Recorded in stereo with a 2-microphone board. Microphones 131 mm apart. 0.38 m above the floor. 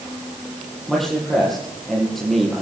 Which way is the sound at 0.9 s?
5° left (ahead or behind).